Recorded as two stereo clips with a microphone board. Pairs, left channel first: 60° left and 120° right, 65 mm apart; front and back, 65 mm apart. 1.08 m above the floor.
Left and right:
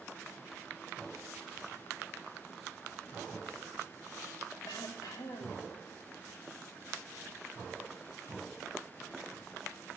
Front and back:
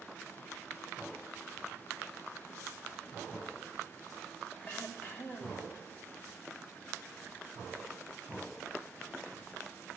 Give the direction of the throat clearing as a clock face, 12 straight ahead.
10 o'clock.